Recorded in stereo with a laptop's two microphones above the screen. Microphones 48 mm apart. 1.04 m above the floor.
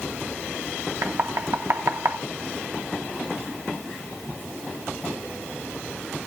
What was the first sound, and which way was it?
Knocking, 65° right (ahead or behind).